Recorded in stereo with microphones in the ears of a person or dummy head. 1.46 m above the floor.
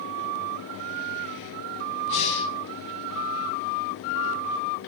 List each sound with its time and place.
2.1 s breathing: 75° left (ahead or behind), 8.5 m